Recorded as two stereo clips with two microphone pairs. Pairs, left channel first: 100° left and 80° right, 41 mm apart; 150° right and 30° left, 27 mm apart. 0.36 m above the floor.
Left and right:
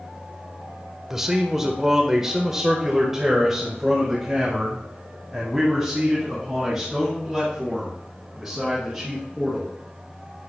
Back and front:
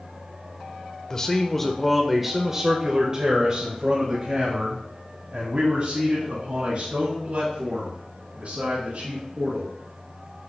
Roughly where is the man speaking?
Behind right.